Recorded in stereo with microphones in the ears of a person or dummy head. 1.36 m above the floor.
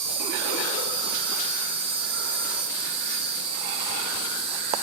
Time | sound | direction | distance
0.0 | an insect | 35° right (ahead or behind) | 3 m